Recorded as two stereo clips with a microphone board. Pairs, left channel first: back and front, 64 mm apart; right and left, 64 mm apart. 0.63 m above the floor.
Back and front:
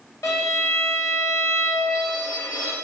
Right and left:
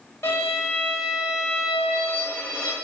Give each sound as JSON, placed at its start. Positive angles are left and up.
{"t": 0.2, "sound": "a violin", "azimuth_deg": -140, "distance_m": 1.3}